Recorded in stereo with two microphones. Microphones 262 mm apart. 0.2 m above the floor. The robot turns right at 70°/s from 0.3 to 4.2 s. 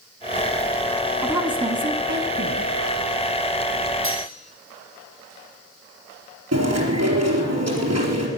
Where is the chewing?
70° right (ahead or behind), 4 m.